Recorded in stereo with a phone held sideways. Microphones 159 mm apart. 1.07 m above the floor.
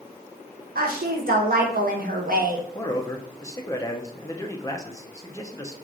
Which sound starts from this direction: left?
A man speaking, at 2.8 s.